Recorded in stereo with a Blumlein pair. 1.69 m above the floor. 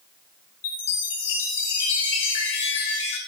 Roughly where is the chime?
Ahead left.